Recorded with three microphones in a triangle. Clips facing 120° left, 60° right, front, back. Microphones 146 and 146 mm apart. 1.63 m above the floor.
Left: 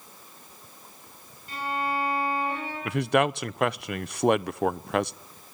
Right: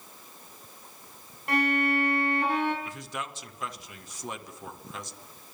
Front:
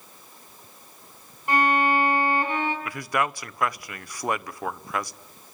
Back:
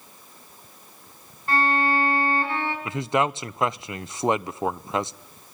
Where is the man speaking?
115° left, 0.6 m.